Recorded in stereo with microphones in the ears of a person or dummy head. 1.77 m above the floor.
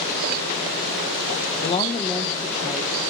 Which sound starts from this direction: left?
A woman speaking, at 1.6 s.